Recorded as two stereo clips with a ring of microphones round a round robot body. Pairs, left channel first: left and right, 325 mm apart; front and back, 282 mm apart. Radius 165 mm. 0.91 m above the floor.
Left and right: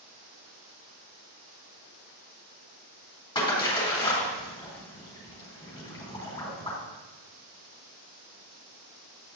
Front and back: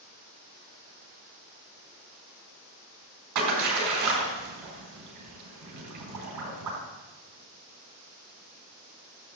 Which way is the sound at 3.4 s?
165° left.